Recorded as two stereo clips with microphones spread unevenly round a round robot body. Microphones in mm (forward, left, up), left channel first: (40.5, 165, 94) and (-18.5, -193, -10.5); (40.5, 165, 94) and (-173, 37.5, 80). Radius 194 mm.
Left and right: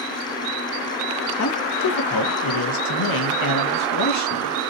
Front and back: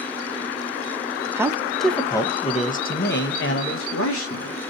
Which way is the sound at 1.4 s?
135° left.